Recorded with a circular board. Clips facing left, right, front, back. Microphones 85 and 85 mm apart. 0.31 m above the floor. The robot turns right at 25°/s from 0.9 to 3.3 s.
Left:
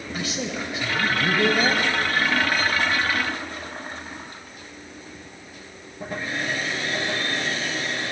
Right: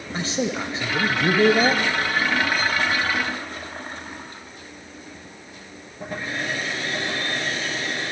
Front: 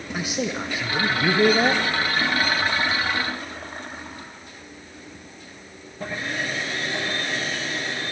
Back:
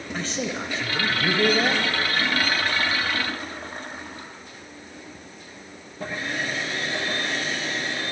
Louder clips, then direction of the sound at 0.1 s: Right 5 dB, front 2 dB; 70° right.